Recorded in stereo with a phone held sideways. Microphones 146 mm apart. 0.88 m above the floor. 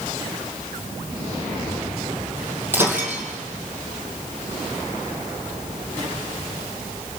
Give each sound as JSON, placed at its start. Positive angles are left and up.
{"t": 2.7, "sound": "breaking glass", "side_deg": -15, "distance_m": 3.5}